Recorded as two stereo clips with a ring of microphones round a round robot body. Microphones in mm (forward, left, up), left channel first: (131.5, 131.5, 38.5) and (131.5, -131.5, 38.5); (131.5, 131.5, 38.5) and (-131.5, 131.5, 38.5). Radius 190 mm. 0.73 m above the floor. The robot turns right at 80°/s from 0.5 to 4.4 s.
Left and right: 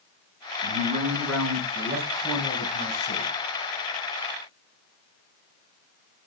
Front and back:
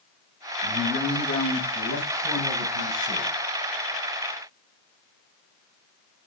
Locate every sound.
0.6 s a man speaking: 135° right, 5 m; by 3.3 s 80° left, 5 m